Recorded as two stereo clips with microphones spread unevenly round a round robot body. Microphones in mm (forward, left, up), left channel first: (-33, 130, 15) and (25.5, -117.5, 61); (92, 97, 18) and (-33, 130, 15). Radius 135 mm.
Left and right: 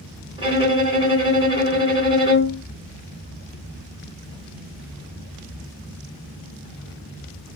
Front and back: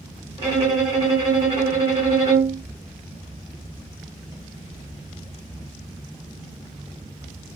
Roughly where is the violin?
Behind right.